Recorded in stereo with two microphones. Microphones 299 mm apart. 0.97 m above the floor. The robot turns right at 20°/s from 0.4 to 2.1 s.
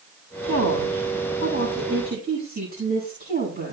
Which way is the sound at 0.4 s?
65° right.